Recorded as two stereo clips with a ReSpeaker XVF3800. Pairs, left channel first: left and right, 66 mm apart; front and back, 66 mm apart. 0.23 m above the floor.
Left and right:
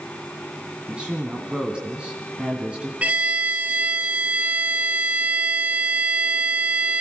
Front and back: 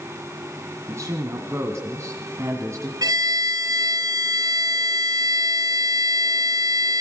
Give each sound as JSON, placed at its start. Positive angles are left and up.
{"t": 0.9, "sound": "a woman speaking", "azimuth_deg": -160, "distance_m": 2.0}
{"t": 3.0, "sound": "a violin", "azimuth_deg": -160, "distance_m": 1.7}